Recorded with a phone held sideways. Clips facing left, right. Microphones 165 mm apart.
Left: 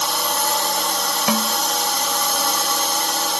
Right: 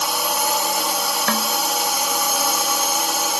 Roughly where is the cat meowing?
No cat meowing in this recording.